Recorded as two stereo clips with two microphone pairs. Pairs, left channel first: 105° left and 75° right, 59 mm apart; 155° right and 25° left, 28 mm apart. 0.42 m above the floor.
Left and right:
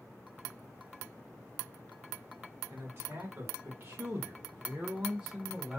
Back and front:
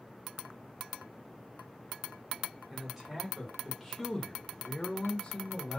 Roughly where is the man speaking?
Ahead right.